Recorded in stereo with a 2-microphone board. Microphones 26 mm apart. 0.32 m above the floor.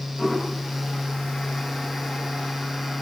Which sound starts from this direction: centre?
A toilet flushing, at 0.2 s.